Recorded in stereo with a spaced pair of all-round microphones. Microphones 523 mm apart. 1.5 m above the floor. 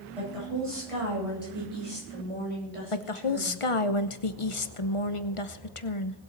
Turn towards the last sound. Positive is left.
turn(degrees=65)  # may be behind; listen again after turning